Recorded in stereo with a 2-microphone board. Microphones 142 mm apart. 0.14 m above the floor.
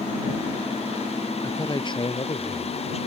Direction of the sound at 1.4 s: 25° left (ahead or behind).